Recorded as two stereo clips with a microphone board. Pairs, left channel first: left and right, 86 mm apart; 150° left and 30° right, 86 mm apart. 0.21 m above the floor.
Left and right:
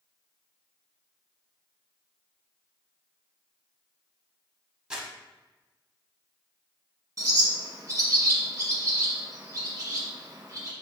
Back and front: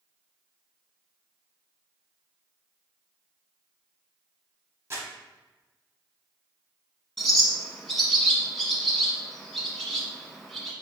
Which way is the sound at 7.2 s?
130° right.